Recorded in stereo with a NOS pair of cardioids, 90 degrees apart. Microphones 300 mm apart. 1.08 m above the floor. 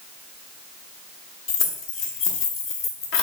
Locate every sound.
1.5 s keys jangling: 40° left, 0.7 m